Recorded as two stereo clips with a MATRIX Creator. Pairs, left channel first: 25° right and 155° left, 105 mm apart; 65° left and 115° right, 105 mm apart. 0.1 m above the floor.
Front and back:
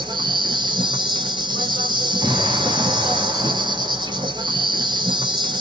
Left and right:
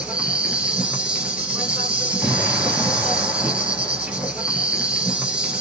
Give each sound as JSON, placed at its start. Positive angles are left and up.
{"t": 0.0, "sound": "an insect", "azimuth_deg": 170, "distance_m": 0.9}
{"t": 2.2, "sound": "an explosion", "azimuth_deg": 160, "distance_m": 1.9}